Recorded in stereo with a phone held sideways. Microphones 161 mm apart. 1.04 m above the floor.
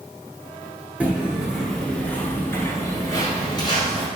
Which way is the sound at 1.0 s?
10° right (ahead or behind).